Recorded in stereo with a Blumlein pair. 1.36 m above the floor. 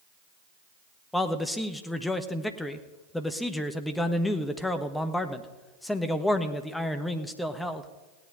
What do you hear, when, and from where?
1.1 s a man speaking: 5° left, 1.2 m